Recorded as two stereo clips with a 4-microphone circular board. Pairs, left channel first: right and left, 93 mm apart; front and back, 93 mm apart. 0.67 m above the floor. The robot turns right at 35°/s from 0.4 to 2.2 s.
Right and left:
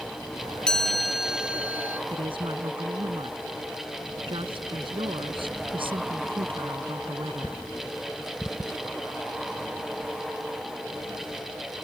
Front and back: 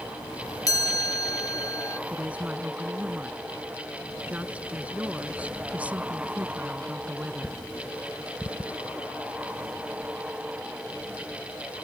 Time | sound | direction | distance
0.7 | a chime | 10° right | ?
2.1 | a woman speaking | 100° left | ?